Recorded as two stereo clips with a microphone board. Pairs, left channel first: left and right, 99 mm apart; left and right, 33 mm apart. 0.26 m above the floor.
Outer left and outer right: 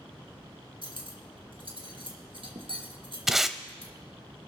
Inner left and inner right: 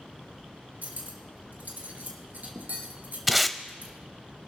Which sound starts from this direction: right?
Cutlery clinking, at 0.8 s.